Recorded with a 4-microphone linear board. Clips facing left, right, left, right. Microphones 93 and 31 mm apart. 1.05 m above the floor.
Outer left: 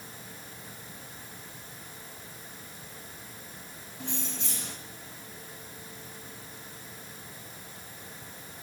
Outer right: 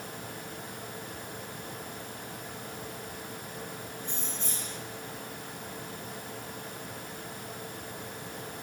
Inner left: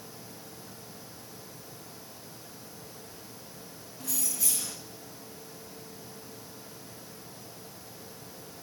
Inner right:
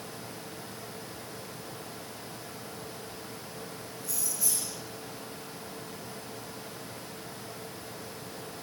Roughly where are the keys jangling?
Left.